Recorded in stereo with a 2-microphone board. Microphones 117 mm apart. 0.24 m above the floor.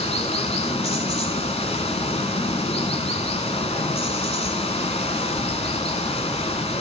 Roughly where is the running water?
Left.